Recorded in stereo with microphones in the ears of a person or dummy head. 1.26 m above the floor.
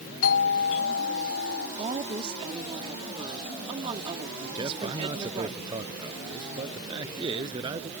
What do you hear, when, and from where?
0.2 s a doorbell: 70° left (ahead or behind)
1.8 s a woman speaking: 35° right (ahead or behind)
4.5 s a man speaking: 30° right (ahead or behind)